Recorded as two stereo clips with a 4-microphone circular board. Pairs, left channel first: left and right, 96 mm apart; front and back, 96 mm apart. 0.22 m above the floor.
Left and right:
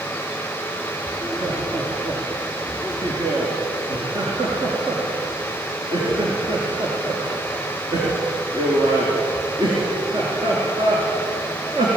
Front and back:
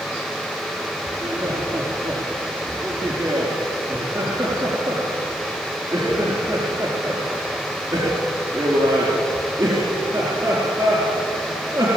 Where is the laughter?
125° right, 4 m.